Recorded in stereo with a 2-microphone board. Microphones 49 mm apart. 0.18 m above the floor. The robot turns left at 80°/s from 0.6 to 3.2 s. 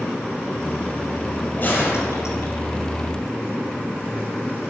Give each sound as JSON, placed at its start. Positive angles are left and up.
{"t": 1.6, "sound": "a gunshot", "azimuth_deg": 150, "distance_m": 4.5}